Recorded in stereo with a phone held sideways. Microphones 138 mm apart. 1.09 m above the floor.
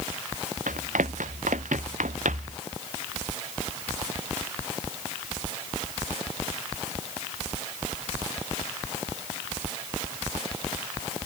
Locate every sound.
0.7 s running footsteps: 80° right; by 2.6 s 70° right (ahead or behind)